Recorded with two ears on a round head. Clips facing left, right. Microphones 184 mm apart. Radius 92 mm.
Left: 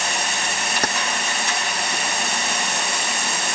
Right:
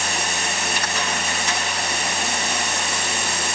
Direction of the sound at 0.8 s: 35° left (ahead or behind).